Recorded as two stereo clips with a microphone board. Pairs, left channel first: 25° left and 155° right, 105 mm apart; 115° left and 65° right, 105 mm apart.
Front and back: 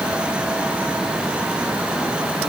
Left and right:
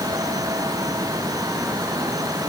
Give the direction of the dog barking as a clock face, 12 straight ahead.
No dog barking in this recording.